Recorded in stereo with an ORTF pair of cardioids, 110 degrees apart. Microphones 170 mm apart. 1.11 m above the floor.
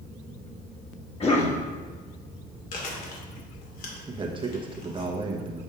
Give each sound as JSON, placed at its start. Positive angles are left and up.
{"t": 1.2, "sound": "a cough", "azimuth_deg": 40, "distance_m": 1.8}
{"t": 2.7, "sound": "chewing", "azimuth_deg": 55, "distance_m": 2.0}
{"t": 4.1, "sound": "a man speaking", "azimuth_deg": -30, "distance_m": 1.2}